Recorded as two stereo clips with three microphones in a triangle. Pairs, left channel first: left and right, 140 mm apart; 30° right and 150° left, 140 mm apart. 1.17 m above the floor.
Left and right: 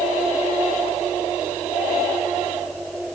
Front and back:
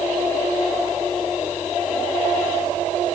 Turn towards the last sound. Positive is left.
No sound to turn to.